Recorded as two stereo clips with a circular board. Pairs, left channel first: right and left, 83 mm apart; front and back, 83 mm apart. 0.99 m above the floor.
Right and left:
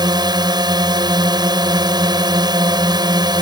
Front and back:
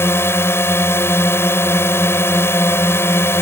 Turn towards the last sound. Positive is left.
turn(degrees=60)